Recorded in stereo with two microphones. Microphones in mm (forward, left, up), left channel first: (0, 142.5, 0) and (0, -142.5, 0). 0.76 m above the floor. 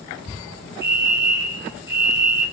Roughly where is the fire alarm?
Centre.